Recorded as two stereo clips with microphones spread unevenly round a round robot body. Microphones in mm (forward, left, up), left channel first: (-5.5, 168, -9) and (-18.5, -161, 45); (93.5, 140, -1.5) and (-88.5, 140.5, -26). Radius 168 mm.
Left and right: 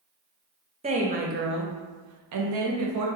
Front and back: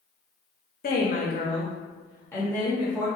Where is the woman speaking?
15° right, 1.2 m; by 3.1 s 105° right, 1.4 m.